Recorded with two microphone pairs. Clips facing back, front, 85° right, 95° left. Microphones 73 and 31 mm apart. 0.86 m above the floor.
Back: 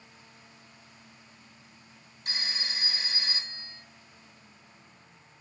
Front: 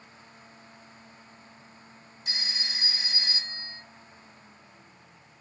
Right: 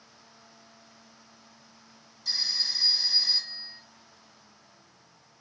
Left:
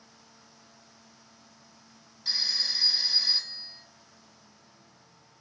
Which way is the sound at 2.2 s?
145° left.